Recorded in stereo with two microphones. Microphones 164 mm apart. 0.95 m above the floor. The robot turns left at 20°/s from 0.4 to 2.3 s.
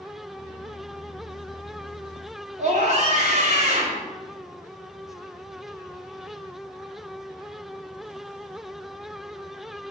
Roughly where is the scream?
Right.